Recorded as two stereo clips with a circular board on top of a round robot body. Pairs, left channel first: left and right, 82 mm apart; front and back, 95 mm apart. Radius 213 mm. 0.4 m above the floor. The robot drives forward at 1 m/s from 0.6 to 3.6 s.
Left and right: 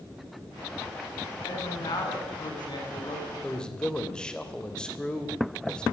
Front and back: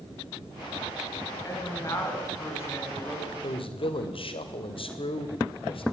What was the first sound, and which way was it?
A woman speaking, 55° left.